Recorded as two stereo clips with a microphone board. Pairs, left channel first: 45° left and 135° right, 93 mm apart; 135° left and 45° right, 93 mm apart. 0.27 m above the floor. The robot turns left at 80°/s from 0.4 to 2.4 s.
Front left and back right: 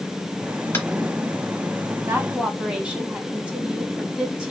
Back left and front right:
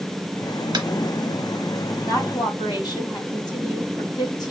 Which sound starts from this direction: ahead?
Tapping, at 0.7 s.